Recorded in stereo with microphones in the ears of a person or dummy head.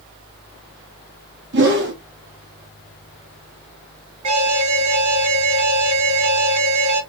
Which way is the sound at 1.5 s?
55° right (ahead or behind).